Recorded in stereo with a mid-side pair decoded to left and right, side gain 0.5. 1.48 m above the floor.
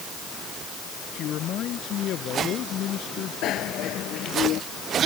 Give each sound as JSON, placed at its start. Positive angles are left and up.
{"t": 1.1, "sound": "a man speaking", "azimuth_deg": 60}
{"t": 3.4, "sound": "a bicycle bell", "azimuth_deg": 65}